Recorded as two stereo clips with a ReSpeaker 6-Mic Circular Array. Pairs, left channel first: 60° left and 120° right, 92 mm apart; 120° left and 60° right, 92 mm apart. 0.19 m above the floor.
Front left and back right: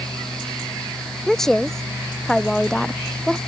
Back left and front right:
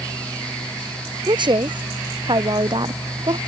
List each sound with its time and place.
1.3 s a woman speaking: 25° right